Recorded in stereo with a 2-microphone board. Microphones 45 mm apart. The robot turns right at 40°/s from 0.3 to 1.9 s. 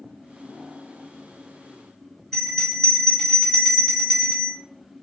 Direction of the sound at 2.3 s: 15° left (ahead or behind).